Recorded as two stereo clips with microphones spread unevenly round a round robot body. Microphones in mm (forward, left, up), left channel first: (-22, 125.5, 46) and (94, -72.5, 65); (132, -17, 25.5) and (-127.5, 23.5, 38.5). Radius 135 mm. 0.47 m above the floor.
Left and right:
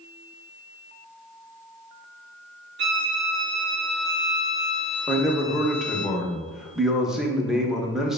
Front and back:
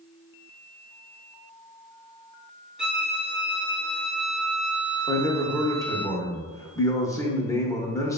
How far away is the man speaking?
About 0.7 m.